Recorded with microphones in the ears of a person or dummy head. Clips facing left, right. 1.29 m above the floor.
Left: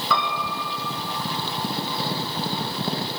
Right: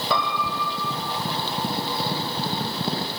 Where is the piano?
30° right (ahead or behind), 5 m.